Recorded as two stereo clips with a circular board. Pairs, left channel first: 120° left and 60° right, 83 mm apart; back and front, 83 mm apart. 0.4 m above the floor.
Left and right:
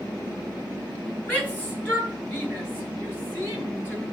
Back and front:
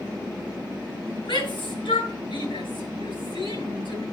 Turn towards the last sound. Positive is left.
turn(degrees=-170)